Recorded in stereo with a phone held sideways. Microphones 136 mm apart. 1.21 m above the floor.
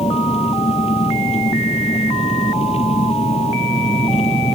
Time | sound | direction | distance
0.0 | an engine running | 50° left (ahead or behind) | ?